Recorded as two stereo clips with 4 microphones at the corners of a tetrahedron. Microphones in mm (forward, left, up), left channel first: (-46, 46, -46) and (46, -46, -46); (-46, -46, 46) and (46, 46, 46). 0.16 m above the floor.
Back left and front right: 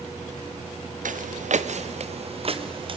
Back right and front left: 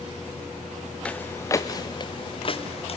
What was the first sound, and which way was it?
Footsteps, 55° right.